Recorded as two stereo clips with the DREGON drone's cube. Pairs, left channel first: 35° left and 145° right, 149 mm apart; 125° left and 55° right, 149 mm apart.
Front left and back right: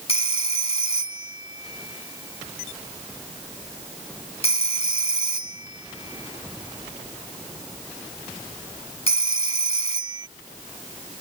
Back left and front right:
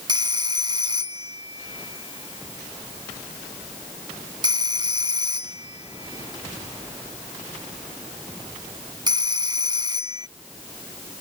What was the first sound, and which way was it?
A phone ringing, straight ahead.